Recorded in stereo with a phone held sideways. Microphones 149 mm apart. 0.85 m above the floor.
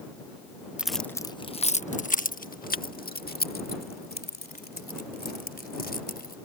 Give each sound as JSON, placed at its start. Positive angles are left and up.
{"t": 0.8, "sound": "keys jangling", "side_deg": -5}